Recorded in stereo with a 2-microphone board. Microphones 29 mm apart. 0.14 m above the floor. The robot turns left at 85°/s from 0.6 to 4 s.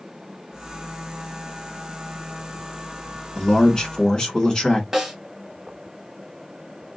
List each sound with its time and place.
3.4 s a man speaking: 25° left (ahead or behind), 1.6 m; by 4.8 s 30° left (ahead or behind), 1.6 m
4.9 s a snare drum: 15° right (ahead or behind), 1.3 m